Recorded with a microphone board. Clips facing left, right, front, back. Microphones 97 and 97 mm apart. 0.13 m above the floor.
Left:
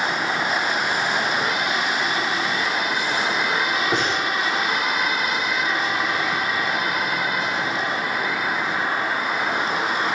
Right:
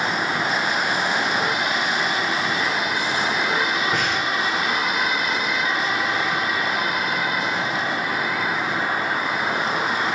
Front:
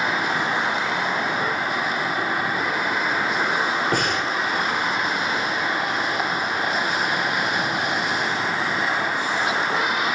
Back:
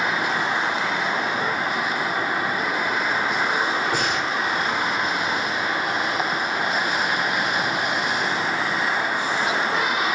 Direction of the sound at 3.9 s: 30° left.